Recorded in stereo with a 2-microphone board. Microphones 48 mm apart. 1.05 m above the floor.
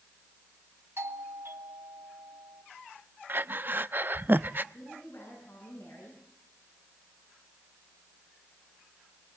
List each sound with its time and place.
1.0 s a doorbell: 65° right (ahead or behind), 3.5 m
3.3 s breathing: 45° right (ahead or behind), 0.5 m
4.7 s a woman speaking: 50° left (ahead or behind), 10 m